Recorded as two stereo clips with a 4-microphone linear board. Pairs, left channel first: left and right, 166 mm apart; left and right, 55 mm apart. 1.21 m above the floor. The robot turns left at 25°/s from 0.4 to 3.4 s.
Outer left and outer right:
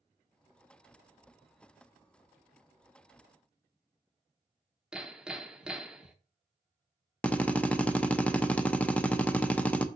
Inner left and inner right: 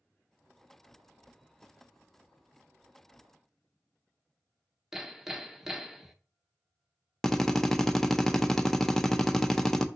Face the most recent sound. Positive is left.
turn(degrees=10)  # may be behind; listen again after turning